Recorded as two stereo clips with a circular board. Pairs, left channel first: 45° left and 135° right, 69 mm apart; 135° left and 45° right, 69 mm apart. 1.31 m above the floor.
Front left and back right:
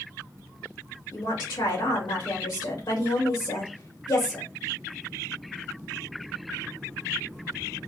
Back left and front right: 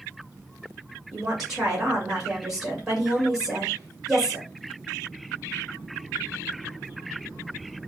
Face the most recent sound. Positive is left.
turn(degrees=35)